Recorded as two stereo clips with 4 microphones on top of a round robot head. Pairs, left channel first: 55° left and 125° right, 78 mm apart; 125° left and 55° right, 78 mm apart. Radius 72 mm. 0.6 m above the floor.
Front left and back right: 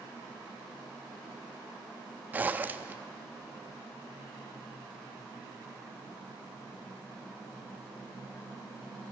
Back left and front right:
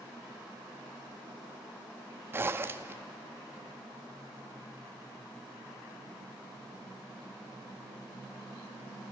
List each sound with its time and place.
2.3 s a zipper: 80° right, 0.9 m